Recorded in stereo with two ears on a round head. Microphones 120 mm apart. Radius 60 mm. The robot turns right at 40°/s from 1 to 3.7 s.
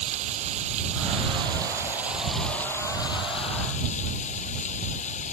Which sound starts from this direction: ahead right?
Running water, at 0.0 s.